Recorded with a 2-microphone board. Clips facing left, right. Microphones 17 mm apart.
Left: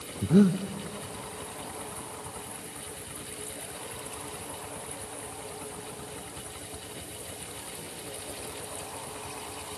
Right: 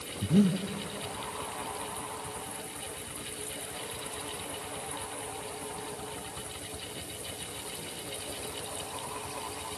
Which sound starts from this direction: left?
Breathing, at 0.2 s.